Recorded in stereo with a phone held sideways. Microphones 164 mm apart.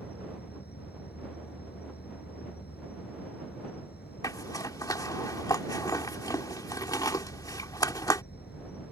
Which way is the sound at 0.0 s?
80° left.